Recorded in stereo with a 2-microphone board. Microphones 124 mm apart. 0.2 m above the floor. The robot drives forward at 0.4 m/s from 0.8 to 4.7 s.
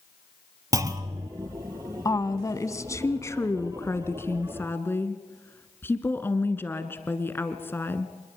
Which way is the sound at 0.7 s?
25° right (ahead or behind).